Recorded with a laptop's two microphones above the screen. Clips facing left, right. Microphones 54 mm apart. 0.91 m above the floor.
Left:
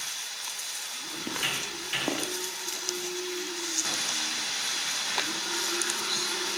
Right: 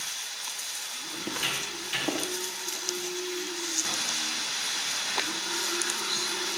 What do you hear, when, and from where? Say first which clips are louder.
1.2 s footsteps: even; 10° left (ahead or behind), 5.5 m; by 2.3 s 15° left (ahead or behind), 6.5 m